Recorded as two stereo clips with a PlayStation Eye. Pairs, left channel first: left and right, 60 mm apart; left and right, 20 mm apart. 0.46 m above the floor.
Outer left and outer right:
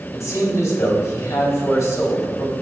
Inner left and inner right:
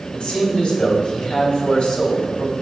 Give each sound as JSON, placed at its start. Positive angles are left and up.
{"t": 0.1, "sound": "a man speaking", "side_deg": 60, "distance_m": 2.5}